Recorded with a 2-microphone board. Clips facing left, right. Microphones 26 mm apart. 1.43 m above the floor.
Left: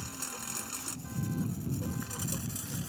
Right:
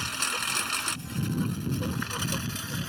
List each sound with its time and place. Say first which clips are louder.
0.0 s a lawn mower: right 12 dB; 75° right (ahead or behind); by 2.9 s 50° right (ahead or behind)